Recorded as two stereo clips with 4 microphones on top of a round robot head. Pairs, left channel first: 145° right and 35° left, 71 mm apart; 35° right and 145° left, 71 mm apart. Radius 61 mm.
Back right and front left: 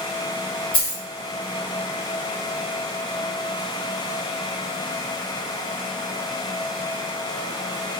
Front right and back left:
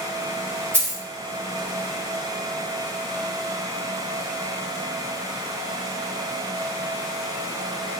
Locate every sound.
0.7 s a dropped coin: 155° right, 1.3 m